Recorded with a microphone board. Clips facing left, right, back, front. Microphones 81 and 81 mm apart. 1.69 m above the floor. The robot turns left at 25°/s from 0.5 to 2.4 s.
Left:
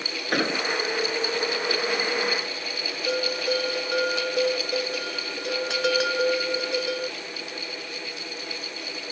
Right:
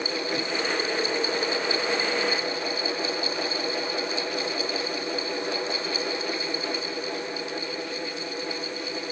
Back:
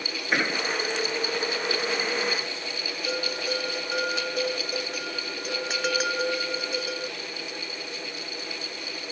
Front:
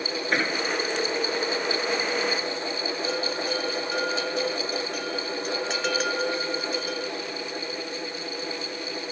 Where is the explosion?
95° left; by 0.6 s 90° left.